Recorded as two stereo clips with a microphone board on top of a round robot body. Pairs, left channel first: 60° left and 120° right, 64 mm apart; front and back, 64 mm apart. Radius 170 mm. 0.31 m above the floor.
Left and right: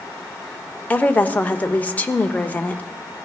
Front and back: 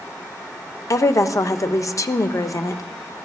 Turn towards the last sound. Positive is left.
turn(degrees=0)